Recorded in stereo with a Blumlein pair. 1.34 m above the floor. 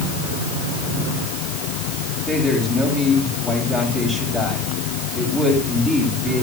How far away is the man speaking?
About 9 m.